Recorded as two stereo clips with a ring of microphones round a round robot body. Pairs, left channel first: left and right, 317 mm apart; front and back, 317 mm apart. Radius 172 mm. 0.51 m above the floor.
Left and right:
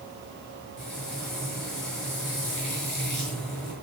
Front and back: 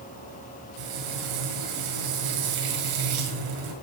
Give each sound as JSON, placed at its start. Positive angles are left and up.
{"t": 0.8, "sound": "frying", "azimuth_deg": 180, "distance_m": 6.5}